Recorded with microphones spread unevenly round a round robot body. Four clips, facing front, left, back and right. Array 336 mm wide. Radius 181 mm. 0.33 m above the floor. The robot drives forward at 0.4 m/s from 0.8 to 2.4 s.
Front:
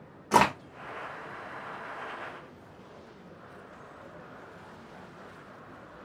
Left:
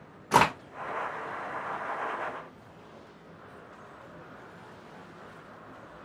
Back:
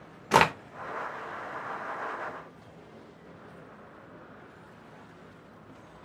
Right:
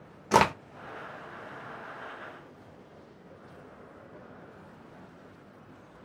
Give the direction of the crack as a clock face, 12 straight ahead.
4 o'clock.